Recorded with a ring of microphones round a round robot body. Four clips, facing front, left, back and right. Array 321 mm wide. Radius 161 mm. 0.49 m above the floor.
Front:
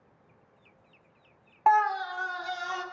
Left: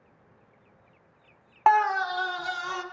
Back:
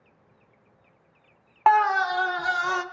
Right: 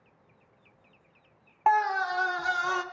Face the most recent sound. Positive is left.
turn(degrees=-155)